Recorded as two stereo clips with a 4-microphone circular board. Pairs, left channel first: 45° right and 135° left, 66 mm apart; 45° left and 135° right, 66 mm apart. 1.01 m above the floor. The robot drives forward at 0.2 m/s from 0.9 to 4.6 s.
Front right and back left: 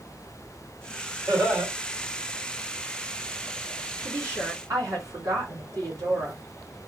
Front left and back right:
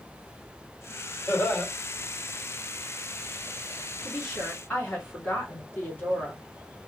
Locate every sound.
1.3 s laughter: 90° left, 2.5 m; by 1.7 s 95° left, 2.5 m
4.0 s a woman speaking: 100° left, 2 m; by 6.4 s 105° left, 2.5 m